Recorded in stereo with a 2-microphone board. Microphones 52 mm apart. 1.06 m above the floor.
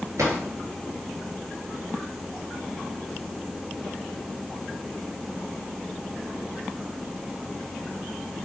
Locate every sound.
0.2 s a drawer: 75° right (ahead or behind), 6.5 m